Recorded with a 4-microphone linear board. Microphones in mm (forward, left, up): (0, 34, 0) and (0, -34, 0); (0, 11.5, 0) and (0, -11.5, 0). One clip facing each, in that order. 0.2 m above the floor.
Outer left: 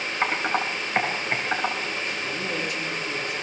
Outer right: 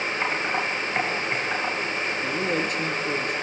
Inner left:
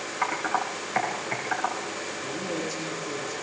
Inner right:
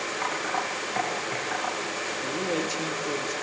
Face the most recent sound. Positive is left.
turn(degrees=-45)  # may be behind; listen again after turning